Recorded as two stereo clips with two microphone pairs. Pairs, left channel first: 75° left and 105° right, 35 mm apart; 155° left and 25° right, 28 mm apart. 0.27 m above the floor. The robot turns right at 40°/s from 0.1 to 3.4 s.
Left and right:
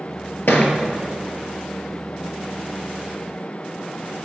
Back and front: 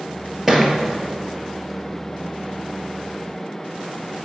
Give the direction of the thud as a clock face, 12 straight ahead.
10 o'clock.